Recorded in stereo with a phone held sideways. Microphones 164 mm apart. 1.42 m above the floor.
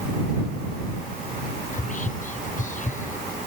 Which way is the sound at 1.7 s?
50° left (ahead or behind).